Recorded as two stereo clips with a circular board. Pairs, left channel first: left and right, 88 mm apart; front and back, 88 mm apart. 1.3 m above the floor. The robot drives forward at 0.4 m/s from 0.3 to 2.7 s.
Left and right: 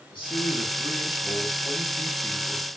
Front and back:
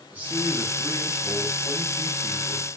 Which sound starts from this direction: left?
A man speaking, at 0.1 s.